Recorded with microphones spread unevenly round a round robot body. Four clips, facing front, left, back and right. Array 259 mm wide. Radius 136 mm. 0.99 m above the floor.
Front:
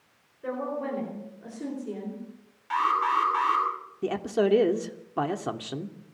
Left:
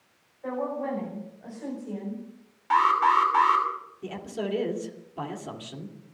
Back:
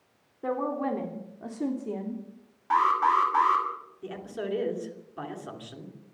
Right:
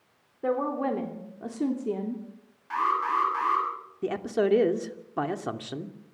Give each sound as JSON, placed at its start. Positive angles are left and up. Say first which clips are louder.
{"t": 0.4, "sound": "a woman speaking", "louder": "right 3 dB, back 2 dB", "azimuth_deg": -120, "distance_m": 4.0}
{"t": 2.7, "sound": "an alarm", "louder": "left 6 dB, back 2 dB", "azimuth_deg": 145, "distance_m": 7.5}
{"t": 4.0, "sound": "a man speaking", "louder": "right 8 dB, front 10 dB", "azimuth_deg": -40, "distance_m": 2.5}